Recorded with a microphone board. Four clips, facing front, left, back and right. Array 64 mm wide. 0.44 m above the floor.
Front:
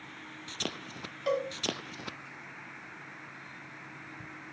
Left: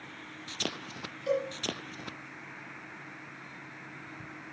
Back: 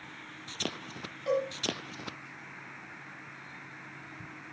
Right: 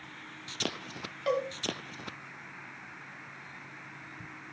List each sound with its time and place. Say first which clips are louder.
1.3 s a cowbell: even, back 1 dB; 80° right, 2 m